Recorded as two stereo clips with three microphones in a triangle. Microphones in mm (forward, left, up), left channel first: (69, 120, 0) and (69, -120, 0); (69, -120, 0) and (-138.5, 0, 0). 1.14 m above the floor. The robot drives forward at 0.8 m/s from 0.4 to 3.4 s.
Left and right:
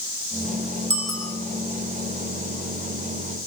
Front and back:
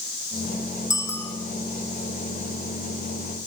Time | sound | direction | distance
0.9 | a bicycle bell | 110° right | 7 m